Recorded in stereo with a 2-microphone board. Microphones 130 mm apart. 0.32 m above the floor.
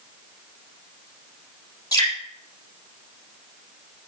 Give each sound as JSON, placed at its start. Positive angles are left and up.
{"t": 1.9, "sound": "dripping", "side_deg": 30, "distance_m": 4.5}